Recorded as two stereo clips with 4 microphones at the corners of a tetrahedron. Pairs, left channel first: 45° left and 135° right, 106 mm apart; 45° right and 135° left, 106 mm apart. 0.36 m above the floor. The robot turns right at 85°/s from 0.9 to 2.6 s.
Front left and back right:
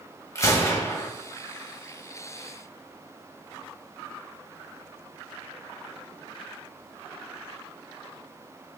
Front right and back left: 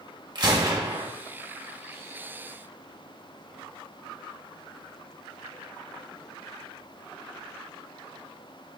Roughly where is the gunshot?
Left.